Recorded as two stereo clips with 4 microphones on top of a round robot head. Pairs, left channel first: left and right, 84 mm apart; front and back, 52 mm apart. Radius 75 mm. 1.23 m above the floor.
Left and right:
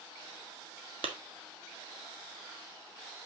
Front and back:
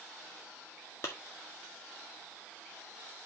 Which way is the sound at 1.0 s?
60° right.